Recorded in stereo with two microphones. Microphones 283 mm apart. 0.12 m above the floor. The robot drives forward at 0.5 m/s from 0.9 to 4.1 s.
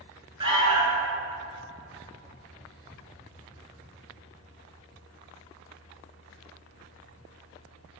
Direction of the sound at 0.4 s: 15° right (ahead or behind).